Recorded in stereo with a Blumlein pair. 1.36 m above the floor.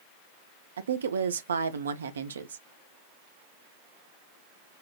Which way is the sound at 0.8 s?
70° right.